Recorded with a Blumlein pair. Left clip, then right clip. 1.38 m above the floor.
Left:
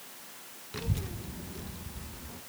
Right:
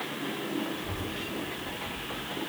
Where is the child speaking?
50° left, 0.7 m; by 2.4 s 65° left, 1.5 m.